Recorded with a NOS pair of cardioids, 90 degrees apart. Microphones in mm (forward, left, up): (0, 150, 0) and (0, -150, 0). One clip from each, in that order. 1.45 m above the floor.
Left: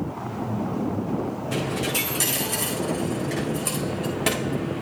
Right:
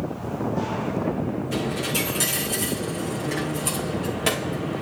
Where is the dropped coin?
10° left, 6.5 m.